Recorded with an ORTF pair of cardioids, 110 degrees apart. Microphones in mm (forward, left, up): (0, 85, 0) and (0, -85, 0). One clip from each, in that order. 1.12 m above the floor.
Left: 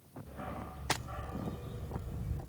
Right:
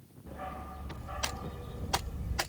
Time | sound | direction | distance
0.3 | a dog barking | 15° right | 2.5 m